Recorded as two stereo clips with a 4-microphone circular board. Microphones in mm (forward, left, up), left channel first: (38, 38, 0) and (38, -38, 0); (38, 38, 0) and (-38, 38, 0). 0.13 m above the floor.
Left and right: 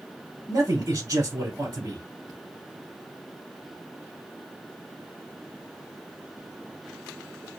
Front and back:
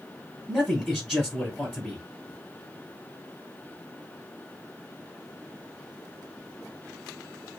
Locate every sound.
0.5 s a man speaking: 70° right, 1.4 m